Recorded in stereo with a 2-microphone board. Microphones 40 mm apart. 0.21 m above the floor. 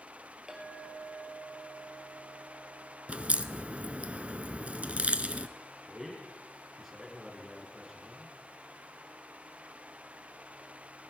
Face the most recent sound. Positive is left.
turn(degrees=-5)  # may be behind; listen again after turning